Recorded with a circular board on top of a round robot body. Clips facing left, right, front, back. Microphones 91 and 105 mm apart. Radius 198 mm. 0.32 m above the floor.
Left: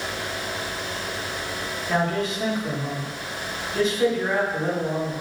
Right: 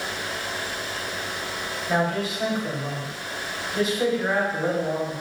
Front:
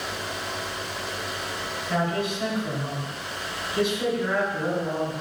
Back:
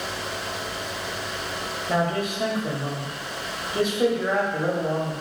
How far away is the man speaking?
About 1.4 m.